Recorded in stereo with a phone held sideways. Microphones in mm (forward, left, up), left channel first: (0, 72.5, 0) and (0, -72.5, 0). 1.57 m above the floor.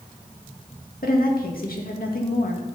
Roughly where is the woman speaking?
Left.